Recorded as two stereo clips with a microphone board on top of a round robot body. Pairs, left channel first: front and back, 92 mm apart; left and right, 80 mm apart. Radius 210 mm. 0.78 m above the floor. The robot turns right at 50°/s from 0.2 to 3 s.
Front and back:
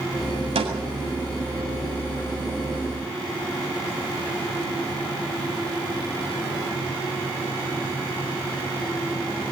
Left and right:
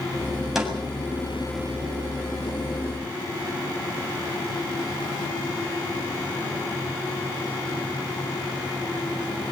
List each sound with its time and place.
0.6 s a snare drum: 175° right, 7.5 m; by 0.7 s 170° right, 7.5 m